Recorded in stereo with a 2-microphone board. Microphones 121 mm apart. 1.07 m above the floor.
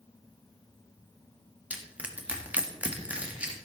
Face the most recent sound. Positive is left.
turn(degrees=-10)  # may be behind; listen again after turning